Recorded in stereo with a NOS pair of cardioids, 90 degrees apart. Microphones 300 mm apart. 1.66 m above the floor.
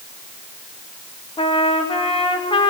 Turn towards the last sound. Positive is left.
turn(degrees=20)